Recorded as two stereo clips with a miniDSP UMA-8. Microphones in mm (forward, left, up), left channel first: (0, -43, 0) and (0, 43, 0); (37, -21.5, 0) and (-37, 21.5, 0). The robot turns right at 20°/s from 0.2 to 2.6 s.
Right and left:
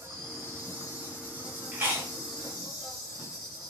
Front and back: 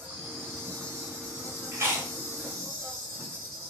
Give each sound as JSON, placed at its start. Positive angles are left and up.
{"t": 0.0, "sound": "an insect", "azimuth_deg": 115, "distance_m": 1.5}
{"t": 1.7, "sound": "chewing", "azimuth_deg": 130, "distance_m": 1.2}